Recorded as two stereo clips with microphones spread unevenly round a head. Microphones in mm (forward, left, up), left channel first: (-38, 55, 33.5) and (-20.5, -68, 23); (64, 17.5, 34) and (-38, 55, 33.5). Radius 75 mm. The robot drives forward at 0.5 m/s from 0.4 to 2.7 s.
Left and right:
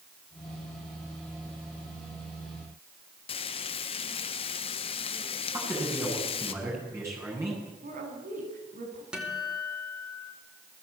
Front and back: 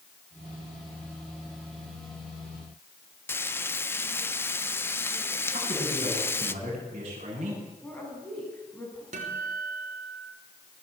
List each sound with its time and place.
3.3 s frying: 50° left, 1.4 m
5.5 s a man speaking: 150° right, 9.5 m
7.8 s a woman speaking: 100° right, 9.5 m
9.1 s a guitar: 165° right, 5 m